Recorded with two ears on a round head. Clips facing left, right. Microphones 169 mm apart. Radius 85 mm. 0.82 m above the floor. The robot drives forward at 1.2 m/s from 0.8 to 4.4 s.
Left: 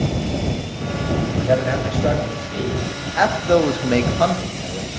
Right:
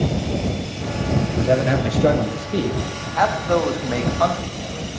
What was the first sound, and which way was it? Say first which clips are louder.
A man speaking: right 1 dB; 35° right (ahead or behind).